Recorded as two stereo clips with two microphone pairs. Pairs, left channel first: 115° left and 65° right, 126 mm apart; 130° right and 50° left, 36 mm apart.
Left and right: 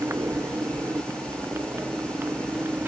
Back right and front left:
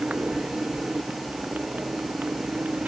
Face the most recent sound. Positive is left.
turn(degrees=10)